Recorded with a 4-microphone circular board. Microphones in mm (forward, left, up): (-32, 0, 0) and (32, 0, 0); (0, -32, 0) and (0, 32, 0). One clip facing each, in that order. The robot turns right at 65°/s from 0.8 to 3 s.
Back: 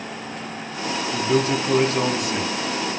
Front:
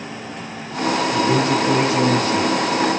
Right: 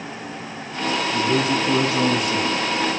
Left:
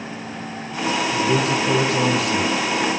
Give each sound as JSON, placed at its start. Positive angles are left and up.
{"t": 1.1, "sound": "a man speaking", "azimuth_deg": 25, "distance_m": 8.5}